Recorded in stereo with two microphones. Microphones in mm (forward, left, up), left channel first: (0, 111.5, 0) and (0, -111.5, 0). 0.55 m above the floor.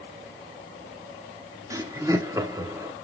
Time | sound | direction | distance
1.7 | laughter | 15° right (ahead or behind) | 1.2 m